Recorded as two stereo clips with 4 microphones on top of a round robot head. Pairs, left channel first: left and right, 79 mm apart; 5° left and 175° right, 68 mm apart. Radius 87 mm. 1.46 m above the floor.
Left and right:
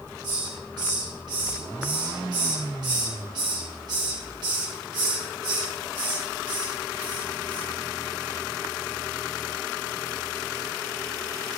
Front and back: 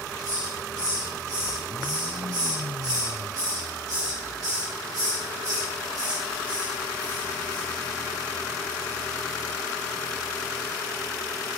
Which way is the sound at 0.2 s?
130° right.